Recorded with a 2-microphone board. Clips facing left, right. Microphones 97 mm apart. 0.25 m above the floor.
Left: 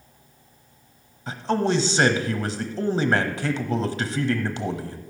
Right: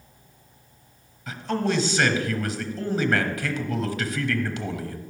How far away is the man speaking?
About 1.0 m.